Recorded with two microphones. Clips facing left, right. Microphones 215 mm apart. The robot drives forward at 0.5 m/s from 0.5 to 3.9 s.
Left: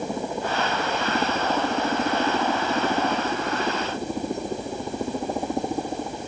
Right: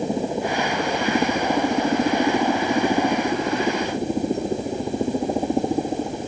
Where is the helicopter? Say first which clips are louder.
Right 5 dB; 20° right (ahead or behind).